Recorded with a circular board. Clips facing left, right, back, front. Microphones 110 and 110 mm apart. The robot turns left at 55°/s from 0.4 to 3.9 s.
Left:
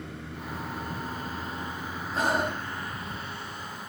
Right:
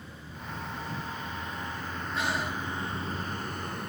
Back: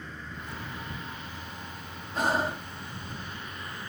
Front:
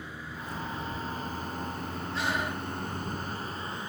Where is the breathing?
140° left; by 2.7 s 110° left.